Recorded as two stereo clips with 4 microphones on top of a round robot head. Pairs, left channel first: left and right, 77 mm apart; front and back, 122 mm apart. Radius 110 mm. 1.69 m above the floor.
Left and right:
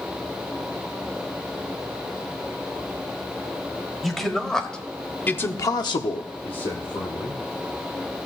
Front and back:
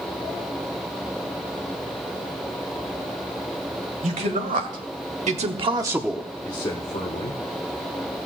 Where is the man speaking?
175° left, 2.5 m; by 7.4 s 35° left, 1.9 m.